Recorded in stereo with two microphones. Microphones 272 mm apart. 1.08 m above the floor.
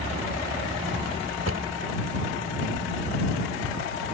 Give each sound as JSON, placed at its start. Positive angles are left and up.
{"t": 1.4, "sound": "a drawer", "side_deg": -70}